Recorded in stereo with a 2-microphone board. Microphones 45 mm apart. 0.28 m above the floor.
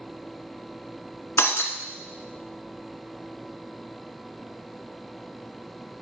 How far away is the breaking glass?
About 1.0 m.